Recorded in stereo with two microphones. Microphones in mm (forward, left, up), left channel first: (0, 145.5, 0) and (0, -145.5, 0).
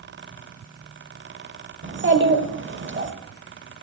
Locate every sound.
1.8 s a child speaking: 40° right (ahead or behind), 0.7 m